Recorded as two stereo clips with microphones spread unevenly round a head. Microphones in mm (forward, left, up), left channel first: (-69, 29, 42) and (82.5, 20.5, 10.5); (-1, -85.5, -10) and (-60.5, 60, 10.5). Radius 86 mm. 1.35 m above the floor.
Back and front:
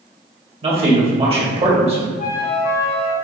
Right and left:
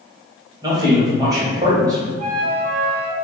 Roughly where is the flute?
Behind left.